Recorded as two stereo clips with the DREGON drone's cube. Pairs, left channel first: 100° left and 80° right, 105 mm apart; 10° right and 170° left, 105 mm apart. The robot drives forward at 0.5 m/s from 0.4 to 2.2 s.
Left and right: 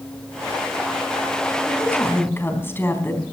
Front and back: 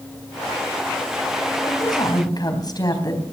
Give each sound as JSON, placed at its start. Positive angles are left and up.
{"t": 1.7, "sound": "a woman speaking", "azimuth_deg": 30, "distance_m": 3.5}